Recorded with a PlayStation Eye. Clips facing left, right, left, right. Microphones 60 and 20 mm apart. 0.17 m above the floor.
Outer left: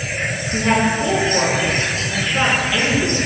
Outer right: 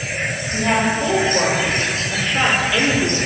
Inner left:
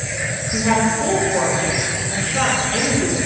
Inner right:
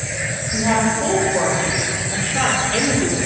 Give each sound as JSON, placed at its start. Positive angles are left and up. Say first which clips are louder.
{"t": 0.5, "sound": "a woman speaking", "louder": "outer left 1 dB, even", "side_deg": 20, "distance_m": 3.0}